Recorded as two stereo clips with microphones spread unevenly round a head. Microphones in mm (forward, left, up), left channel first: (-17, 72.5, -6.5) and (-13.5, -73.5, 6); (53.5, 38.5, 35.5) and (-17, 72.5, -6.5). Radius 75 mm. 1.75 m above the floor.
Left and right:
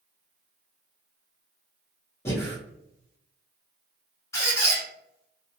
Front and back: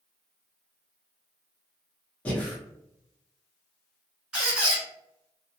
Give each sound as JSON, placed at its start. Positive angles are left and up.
{"t": 2.2, "sound": "breathing", "azimuth_deg": 20, "distance_m": 0.9}
{"t": 4.3, "sound": "a squeak", "azimuth_deg": 30, "distance_m": 1.0}